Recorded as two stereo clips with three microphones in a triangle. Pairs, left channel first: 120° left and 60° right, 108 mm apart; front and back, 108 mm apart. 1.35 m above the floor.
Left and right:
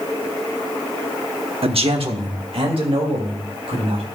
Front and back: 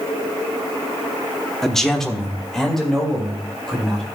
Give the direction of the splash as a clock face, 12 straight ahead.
No splash in this recording.